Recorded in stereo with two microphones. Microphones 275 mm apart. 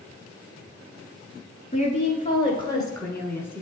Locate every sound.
1.7 s a woman speaking: 25° left (ahead or behind), 1.4 m; by 3.6 s 5° left (ahead or behind), 1.5 m